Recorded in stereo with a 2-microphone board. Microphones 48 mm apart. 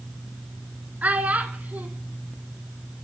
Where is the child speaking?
35° right (ahead or behind), 1.0 m.